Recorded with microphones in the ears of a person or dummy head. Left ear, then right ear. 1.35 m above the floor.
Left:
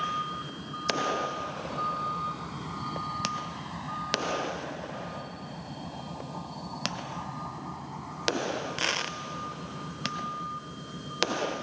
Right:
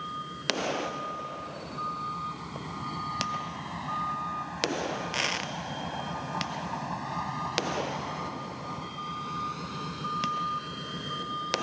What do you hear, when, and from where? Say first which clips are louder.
0.0 s a vehicle: left 1 dB; 15° left (ahead or behind); by 11.6 s 70° right (ahead or behind)